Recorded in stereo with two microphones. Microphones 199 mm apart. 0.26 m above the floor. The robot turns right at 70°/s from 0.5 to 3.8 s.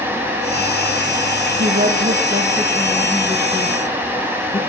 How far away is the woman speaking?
About 7 m.